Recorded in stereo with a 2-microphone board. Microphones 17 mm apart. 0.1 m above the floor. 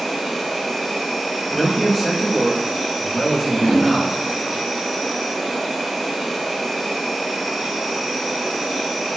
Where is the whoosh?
80° right, 1.9 m.